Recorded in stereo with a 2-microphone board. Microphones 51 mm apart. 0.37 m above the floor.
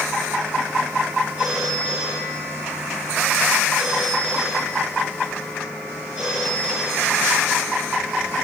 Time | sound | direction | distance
1.4 | a phone ringing | 25° right (ahead or behind) | 8 m